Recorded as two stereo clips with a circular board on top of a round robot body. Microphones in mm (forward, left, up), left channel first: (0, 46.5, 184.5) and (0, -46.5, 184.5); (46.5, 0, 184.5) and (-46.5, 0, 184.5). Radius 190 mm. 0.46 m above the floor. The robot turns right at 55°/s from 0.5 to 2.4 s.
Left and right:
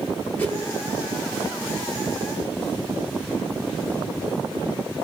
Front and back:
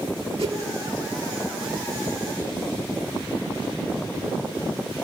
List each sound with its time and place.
0.4 s a whoosh: 165° left, 9 m; by 0.6 s 170° left, 9 m